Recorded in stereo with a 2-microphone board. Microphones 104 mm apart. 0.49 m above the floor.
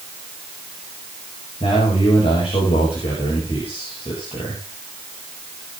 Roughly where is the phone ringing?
No phone ringing in this recording.